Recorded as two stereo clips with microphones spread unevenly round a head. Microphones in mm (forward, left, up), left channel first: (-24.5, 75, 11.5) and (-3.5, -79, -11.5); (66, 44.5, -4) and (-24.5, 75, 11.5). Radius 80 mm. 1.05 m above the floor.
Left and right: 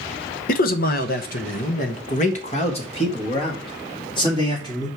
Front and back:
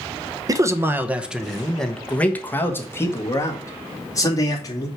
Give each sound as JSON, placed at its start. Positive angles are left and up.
{"t": 0.5, "sound": "a man speaking", "azimuth_deg": 110, "distance_m": 1.0}